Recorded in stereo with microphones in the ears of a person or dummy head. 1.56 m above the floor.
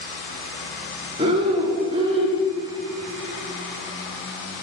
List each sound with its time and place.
1.2 s breathing: 30° right (ahead or behind), 1.8 m